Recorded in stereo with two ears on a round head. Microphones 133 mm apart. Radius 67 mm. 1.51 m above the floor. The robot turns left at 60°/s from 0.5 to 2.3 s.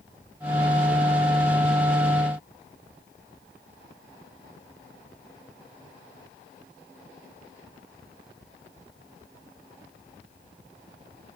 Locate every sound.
Only background noise.